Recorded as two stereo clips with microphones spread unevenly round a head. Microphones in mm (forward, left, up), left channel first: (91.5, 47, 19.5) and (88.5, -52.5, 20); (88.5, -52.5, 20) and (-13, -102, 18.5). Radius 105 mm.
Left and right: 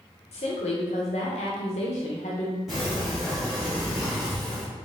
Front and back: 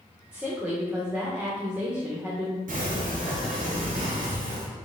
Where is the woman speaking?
120° left, 0.9 m.